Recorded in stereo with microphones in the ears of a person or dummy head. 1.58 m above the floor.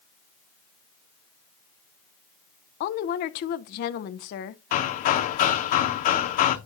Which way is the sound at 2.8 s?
45° left (ahead or behind).